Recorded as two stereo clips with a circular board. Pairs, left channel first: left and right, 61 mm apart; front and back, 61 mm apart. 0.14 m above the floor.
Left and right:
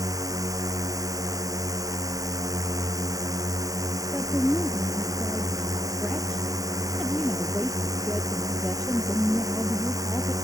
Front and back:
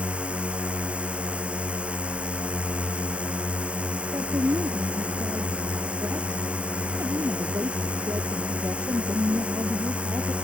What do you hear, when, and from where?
0.0 s a drone: 110° right
4.1 s a woman speaking: 165° left